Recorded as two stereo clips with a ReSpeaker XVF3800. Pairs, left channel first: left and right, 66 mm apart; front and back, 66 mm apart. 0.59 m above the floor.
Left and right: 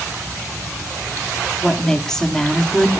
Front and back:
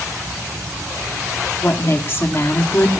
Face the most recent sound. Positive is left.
turn(degrees=15)